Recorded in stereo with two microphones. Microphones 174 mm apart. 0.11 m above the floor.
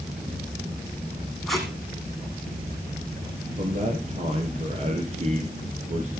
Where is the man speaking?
40° right (ahead or behind), 2.5 m.